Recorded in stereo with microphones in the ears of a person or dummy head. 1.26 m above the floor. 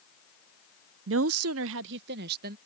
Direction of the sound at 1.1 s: 55° right (ahead or behind).